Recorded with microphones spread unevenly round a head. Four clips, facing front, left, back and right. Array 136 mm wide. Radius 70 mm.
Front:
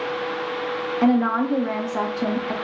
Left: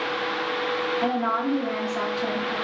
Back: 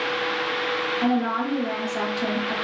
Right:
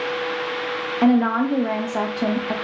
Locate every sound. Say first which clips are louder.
1.0 s a woman speaking: right 10 dB, front 5 dB; 60° right, 0.8 m